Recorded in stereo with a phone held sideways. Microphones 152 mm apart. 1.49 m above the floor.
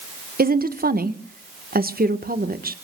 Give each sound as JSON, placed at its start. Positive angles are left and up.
{"t": 0.4, "sound": "a woman speaking", "side_deg": -80, "distance_m": 1.4}